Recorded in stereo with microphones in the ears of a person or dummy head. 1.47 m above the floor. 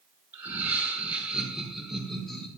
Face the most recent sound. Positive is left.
turn(degrees=5)  # may be behind; listen again after turning